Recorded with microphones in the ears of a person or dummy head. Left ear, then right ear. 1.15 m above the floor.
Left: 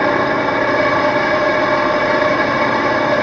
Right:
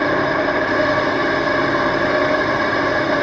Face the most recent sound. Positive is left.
turn(degrees=45)  # may be behind; listen again after turning